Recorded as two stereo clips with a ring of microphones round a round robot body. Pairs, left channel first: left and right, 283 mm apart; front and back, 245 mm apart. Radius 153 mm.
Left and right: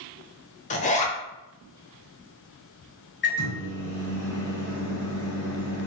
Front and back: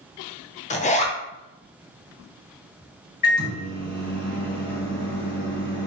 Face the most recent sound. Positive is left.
turn(degrees=45)